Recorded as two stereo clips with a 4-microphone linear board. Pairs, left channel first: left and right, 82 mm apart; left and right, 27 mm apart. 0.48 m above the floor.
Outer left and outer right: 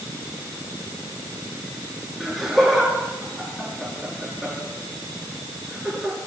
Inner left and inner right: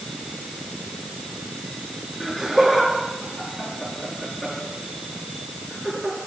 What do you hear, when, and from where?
2.2 s laughter: centre (ahead or behind), 5.5 m